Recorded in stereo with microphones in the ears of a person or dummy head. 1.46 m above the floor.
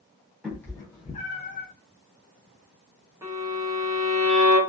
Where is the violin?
15° right (ahead or behind), 0.8 m.